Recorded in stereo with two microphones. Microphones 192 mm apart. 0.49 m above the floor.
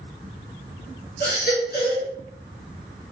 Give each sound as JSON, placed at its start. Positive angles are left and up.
{"t": 1.2, "sound": "a baby crying", "side_deg": 55, "distance_m": 2.5}